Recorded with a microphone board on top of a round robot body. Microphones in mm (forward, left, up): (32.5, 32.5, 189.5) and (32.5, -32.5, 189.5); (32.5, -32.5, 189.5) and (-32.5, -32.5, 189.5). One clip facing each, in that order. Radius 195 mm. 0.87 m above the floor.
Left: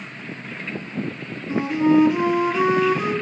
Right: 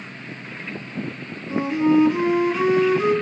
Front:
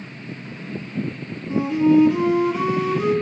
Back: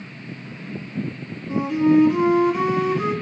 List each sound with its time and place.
1.5 s a flute: 165° left, 3 m